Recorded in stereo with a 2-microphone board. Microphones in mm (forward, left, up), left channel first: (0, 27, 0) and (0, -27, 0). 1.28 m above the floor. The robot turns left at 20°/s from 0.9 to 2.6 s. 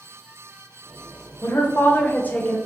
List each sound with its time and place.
1.4 s a woman speaking: 50° left (ahead or behind), 0.7 m; by 2.6 s 25° left (ahead or behind), 0.7 m